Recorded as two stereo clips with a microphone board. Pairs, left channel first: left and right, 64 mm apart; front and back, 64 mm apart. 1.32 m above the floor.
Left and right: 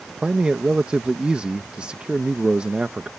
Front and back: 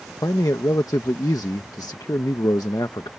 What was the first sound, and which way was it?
A man speaking, 15° right.